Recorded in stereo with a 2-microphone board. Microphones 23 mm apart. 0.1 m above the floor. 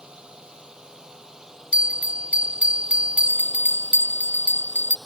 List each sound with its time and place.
0.0 s a drone: 35° right (ahead or behind); by 5.1 s centre (ahead or behind)
1.7 s a bell: 65° right (ahead or behind)